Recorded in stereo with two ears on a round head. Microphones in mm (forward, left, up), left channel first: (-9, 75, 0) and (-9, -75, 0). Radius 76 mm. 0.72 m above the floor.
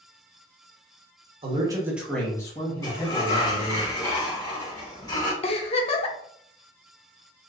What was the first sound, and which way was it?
A man speaking, 35° right (ahead or behind).